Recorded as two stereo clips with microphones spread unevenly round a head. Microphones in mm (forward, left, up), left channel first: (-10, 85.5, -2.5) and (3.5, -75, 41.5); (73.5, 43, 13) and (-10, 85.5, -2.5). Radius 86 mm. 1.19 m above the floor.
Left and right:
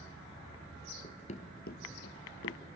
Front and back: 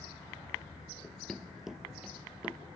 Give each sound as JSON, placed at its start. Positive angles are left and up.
{"t": 1.0, "sound": "running footsteps", "azimuth_deg": 25, "distance_m": 1.3}